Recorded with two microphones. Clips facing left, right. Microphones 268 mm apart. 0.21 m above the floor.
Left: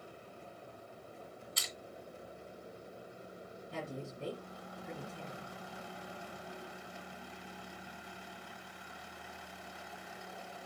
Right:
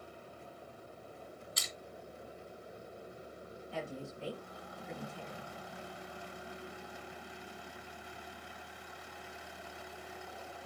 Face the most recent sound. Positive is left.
turn(degrees=50)  # may be behind; listen again after turning